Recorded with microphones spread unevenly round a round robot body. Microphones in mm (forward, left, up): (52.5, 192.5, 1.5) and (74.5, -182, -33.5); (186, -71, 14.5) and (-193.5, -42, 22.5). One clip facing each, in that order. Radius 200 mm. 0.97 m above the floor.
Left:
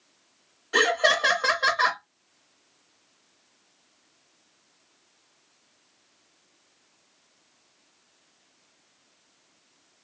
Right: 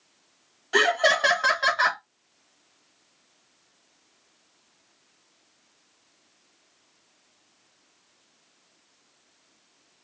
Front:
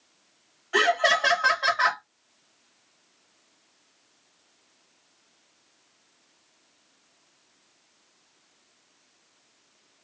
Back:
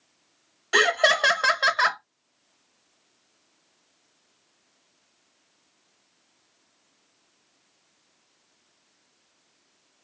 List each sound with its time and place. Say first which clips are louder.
0.7 s laughter: right 1 dB, back 1 dB; 165° right, 1.0 m